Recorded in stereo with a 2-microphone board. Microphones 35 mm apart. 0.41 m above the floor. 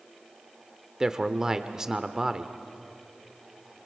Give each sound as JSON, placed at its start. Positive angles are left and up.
{"t": 1.0, "sound": "a man speaking", "side_deg": -20, "distance_m": 0.8}